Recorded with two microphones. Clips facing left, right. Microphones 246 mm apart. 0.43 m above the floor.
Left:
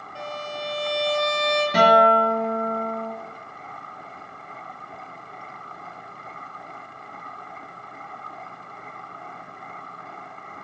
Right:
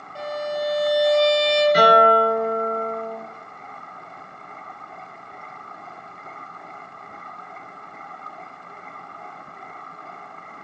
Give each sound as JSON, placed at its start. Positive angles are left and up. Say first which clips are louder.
{"t": 0.1, "sound": "a violin", "louder": "right 7 dB", "side_deg": -40, "distance_m": 1.6}
{"t": 1.7, "sound": "a guitar", "louder": "left 2 dB", "side_deg": 70, "distance_m": 1.1}